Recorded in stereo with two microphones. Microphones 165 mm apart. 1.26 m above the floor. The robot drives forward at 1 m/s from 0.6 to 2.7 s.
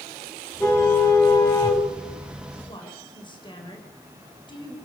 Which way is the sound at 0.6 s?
15° left (ahead or behind).